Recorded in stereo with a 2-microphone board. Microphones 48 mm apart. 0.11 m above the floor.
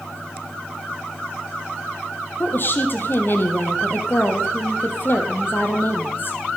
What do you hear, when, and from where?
2.4 s a woman speaking: 45° left (ahead or behind), 3.5 m